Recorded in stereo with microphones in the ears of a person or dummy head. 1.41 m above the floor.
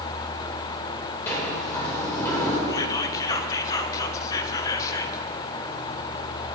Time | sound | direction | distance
1.3 | a sliding door | 15° left (ahead or behind) | 4.5 m
2.7 | whispering | 25° left (ahead or behind) | 1.4 m